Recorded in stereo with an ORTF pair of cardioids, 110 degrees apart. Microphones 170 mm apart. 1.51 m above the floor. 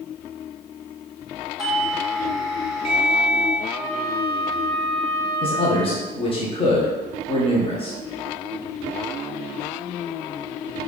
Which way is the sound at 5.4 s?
35° left.